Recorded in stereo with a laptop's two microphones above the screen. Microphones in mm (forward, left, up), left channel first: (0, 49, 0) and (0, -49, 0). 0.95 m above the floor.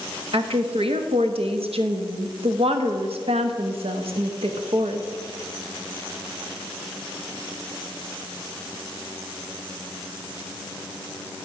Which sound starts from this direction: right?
A woman speaking, at 0.3 s.